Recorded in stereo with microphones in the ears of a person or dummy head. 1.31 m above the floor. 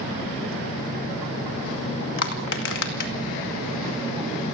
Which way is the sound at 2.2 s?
65° left (ahead or behind).